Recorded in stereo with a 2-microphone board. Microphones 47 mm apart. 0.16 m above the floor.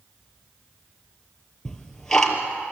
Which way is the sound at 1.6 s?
10° left (ahead or behind).